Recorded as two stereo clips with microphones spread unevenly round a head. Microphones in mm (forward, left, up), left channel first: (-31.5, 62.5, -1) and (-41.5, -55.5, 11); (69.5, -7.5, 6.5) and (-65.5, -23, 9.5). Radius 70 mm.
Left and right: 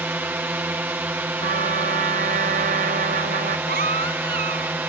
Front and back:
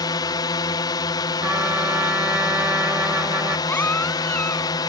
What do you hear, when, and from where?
0.0 s a drone: 25° right
1.4 s a trumpet: 95° right
3.7 s a baby crying: 70° right